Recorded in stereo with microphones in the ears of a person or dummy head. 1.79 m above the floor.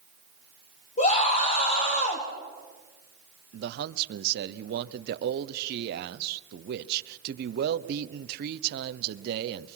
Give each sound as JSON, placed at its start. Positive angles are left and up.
{"t": 1.0, "sound": "a scream", "side_deg": 35, "distance_m": 2.5}
{"t": 3.5, "sound": "a man speaking", "side_deg": -50, "distance_m": 0.9}